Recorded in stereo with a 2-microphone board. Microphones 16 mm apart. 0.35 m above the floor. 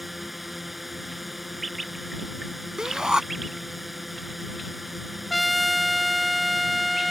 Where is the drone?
5° right (ahead or behind).